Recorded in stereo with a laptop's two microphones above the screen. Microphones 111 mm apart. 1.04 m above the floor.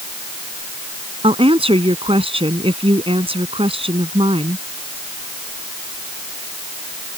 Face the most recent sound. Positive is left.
turn(degrees=-55)  # may be behind; listen again after turning